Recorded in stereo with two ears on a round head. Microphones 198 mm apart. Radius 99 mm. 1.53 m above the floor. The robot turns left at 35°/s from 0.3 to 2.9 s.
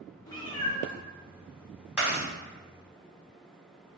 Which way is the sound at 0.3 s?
20° left (ahead or behind).